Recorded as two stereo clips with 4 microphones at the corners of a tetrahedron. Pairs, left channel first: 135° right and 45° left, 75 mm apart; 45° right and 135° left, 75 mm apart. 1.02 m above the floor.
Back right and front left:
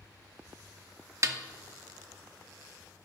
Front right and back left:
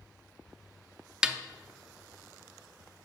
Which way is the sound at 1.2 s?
60° left.